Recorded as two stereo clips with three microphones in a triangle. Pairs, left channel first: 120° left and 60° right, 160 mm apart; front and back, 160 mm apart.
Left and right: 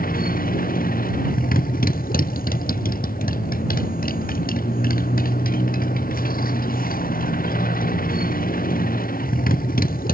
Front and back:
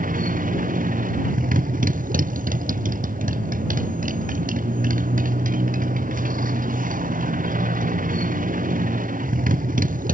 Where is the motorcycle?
145° left.